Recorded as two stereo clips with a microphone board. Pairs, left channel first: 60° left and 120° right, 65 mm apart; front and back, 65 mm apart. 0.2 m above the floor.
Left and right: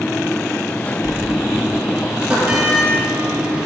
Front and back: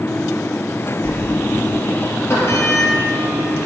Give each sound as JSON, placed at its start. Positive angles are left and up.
{"t": 1.0, "sound": "a sliding door", "azimuth_deg": -50, "distance_m": 2.5}